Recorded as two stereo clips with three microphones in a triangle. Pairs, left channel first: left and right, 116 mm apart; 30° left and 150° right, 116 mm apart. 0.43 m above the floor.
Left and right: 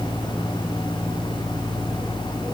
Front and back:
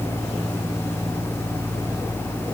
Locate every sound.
Only background noise.